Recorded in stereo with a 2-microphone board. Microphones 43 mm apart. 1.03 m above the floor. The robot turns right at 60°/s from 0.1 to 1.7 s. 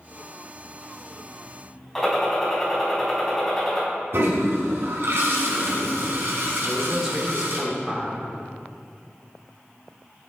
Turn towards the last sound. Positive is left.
turn(degrees=-10)  # may be behind; listen again after turning